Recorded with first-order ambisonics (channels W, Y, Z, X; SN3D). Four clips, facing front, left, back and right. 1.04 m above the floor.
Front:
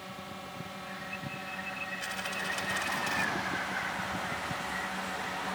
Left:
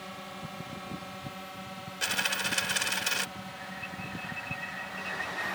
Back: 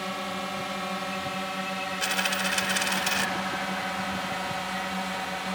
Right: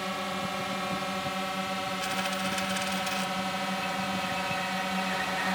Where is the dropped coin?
150° left.